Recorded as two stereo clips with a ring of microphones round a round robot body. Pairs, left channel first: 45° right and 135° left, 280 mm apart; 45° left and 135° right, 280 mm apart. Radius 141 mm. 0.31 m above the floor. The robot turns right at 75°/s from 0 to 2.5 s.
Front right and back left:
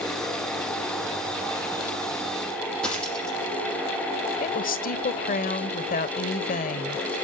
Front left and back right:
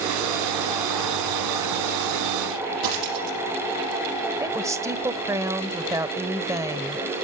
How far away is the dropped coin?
About 6 m.